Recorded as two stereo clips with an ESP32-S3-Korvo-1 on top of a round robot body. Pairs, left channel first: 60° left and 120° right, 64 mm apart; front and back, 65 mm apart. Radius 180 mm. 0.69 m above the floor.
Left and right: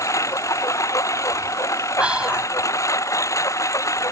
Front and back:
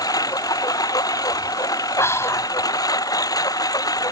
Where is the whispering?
45° right.